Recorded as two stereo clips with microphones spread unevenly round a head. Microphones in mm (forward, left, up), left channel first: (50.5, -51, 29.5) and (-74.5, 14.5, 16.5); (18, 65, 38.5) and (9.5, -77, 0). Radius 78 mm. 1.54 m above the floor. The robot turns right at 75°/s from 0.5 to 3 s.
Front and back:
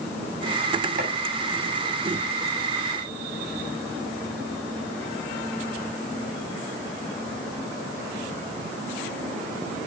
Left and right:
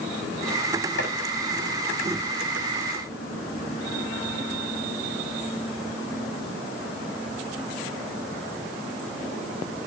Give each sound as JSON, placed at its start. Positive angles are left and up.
{"t": 1.0, "sound": "chopping", "azimuth_deg": 110, "distance_m": 8.5}